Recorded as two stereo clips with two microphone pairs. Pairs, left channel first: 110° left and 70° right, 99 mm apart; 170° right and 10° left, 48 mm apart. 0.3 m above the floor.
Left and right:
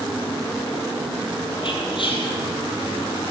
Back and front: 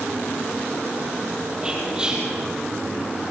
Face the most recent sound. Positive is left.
turn(degrees=80)